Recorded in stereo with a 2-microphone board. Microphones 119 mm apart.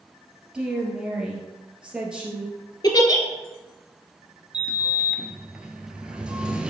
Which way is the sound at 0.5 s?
10° right (ahead or behind).